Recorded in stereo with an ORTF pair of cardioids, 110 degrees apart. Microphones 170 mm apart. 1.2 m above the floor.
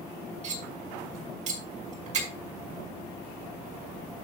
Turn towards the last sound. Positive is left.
turn(degrees=-45)